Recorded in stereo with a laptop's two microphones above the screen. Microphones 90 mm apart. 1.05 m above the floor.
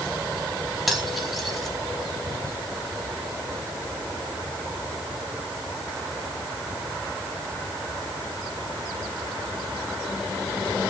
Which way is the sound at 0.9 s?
Centre (ahead or behind).